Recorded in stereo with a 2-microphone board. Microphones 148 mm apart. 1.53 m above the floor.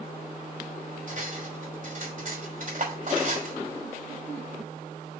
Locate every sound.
1.1 s cutlery clinking: 60° right (ahead or behind), 3 m